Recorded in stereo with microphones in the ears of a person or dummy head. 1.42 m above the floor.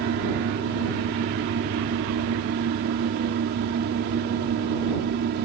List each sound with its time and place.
0.0 s a fan: 60° right (ahead or behind)